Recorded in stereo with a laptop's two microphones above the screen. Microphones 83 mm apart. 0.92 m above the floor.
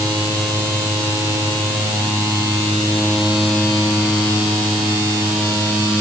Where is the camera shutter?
I don't hear a camera shutter.